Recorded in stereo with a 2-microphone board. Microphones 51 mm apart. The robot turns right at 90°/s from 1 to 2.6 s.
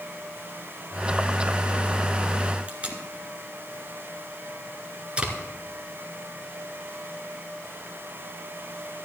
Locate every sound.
2.7 s tape being pulled: 20° right (ahead or behind), 1.9 m